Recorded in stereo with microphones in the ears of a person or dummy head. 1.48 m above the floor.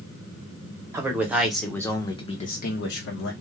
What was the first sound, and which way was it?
A man speaking, 15° right (ahead or behind).